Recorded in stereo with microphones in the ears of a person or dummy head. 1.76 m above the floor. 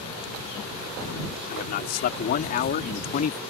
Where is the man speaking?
55° left (ahead or behind); by 3.4 s 50° left (ahead or behind).